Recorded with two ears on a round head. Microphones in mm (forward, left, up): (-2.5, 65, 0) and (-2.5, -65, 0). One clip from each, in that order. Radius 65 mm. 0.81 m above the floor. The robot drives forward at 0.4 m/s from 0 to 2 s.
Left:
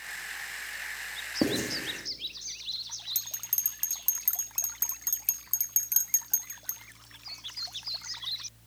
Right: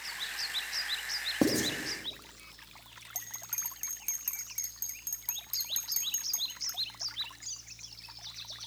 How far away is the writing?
About 1.5 m.